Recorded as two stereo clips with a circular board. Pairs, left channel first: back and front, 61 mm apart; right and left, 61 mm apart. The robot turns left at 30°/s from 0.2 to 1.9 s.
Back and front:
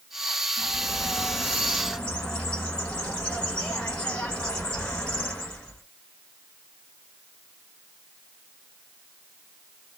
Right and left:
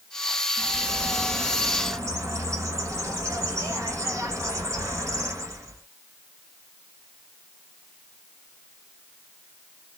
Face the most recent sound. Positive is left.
turn(degrees=110)